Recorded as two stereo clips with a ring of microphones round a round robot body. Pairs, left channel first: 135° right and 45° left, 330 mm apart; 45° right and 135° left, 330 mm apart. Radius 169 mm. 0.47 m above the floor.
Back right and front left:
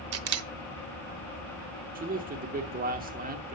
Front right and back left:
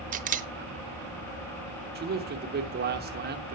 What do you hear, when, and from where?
0.1 s a camera shutter: 75° left, 0.6 m
1.9 s a man speaking: 95° left, 0.9 m